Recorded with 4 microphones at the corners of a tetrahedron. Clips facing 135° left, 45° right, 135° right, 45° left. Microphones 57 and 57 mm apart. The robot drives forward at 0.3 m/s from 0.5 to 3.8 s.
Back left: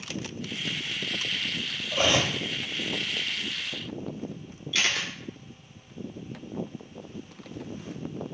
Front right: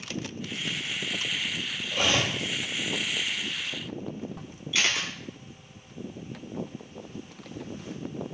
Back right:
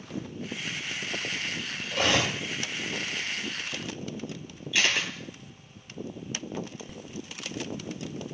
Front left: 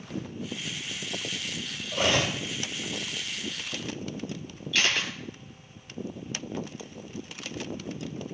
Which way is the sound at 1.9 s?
110° right.